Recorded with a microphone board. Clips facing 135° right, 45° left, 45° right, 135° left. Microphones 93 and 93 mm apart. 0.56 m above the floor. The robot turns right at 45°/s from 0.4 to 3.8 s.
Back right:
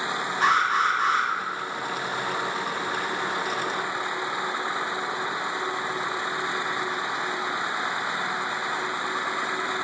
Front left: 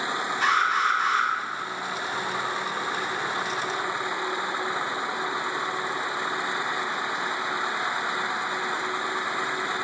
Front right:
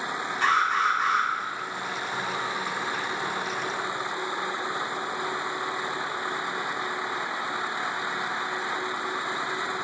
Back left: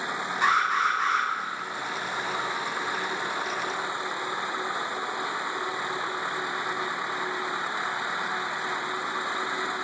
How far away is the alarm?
About 1.9 m.